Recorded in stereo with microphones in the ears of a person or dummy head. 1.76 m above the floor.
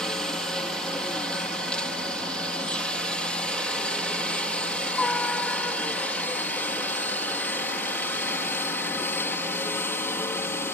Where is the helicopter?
5° left (ahead or behind); by 10.7 s 15° left (ahead or behind).